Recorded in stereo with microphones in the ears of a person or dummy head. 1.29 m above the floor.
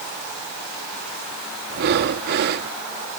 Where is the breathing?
50° right (ahead or behind).